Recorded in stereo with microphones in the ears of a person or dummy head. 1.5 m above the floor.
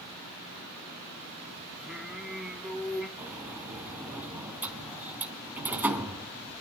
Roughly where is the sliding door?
Centre.